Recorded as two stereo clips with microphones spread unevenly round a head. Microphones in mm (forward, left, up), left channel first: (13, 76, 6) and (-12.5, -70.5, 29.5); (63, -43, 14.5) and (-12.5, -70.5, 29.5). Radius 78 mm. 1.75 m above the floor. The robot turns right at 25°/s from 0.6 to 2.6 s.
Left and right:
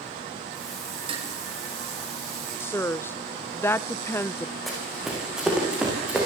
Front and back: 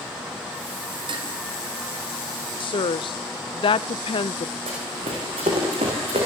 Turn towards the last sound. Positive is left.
turn(degrees=180)